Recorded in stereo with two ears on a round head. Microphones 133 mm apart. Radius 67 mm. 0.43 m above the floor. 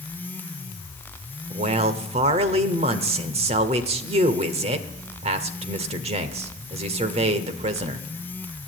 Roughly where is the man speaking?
Right.